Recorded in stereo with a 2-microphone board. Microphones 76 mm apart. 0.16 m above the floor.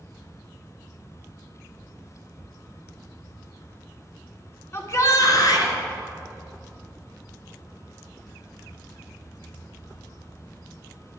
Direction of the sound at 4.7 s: 35° left (ahead or behind).